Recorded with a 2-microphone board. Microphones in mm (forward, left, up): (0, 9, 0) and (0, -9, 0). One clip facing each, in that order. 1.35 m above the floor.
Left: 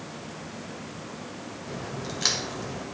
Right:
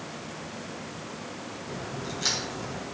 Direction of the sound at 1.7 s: 35° left (ahead or behind).